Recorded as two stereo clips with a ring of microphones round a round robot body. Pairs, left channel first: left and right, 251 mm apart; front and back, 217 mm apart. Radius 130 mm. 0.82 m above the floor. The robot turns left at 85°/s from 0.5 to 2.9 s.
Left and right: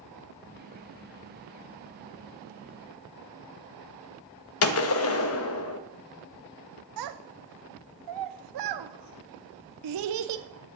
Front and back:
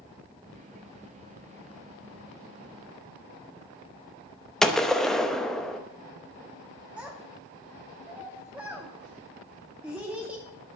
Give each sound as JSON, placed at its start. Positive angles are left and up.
{"t": 4.6, "sound": "a gunshot", "azimuth_deg": 90, "distance_m": 0.9}
{"t": 7.0, "sound": "a child speaking", "azimuth_deg": -95, "distance_m": 0.5}